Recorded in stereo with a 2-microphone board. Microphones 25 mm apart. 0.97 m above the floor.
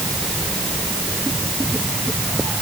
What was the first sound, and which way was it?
Only background noise.